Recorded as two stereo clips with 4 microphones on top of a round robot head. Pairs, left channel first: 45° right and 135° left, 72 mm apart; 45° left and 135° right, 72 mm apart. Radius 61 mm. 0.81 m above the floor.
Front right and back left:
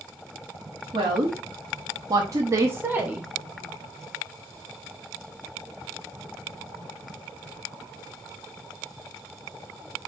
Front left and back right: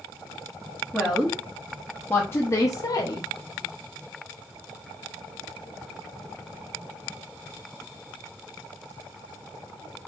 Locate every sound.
0.9 s a woman speaking: 135° left, 1.2 m; by 3.3 s 60° left, 0.8 m